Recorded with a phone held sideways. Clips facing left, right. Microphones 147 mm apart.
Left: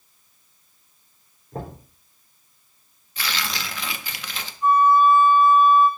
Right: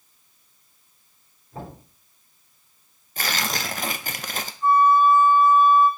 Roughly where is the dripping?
I don't hear dripping.